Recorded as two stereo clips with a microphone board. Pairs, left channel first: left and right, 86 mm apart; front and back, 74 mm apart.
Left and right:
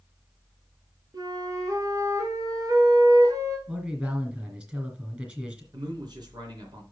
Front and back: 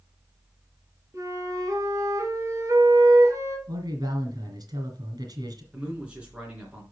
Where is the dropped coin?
I don't hear a dropped coin.